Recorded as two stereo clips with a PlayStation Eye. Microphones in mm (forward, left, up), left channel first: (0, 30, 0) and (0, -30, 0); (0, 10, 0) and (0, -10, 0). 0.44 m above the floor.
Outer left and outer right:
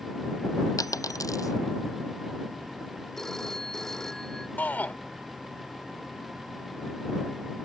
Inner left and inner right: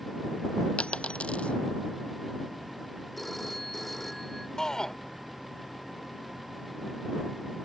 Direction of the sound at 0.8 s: 75° left (ahead or behind).